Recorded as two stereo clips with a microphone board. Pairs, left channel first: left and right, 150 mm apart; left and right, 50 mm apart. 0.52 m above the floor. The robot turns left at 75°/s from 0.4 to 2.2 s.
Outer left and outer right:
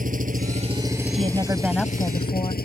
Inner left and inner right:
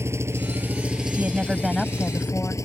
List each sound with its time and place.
0.0 s an engine running: 120° right; by 2.7 s 105° left
1.1 s a woman speaking: 135° right; by 2.6 s 145° left